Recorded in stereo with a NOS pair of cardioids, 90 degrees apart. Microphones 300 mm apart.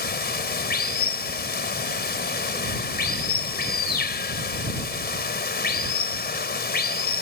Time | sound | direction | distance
0.0 | running water | 35° left | ?